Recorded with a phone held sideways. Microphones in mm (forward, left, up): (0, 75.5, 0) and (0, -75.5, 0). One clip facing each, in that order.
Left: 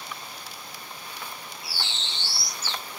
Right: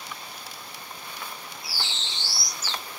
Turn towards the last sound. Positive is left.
turn(degrees=55)  # may be behind; listen again after turning